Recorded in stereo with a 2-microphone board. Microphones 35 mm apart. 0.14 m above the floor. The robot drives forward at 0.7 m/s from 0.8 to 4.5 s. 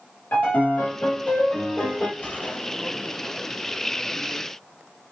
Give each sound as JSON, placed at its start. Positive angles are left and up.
{"t": 0.3, "sound": "a piano", "side_deg": 65, "distance_m": 3.5}
{"t": 2.2, "sound": "a gunshot", "side_deg": 55, "distance_m": 3.0}